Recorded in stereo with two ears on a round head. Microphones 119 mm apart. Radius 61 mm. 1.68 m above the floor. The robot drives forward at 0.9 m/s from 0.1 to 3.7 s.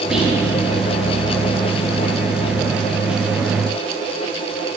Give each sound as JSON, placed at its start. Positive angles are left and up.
{"t": 0.1, "sound": "whispering", "side_deg": -5, "distance_m": 3.0}